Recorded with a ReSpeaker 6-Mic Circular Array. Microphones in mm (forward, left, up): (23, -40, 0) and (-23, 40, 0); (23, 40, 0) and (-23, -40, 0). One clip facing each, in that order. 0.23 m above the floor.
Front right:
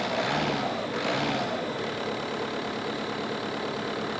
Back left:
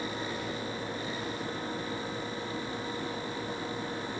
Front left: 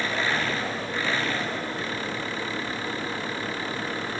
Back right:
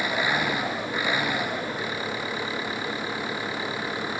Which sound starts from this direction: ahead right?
An engine running, at 0.0 s.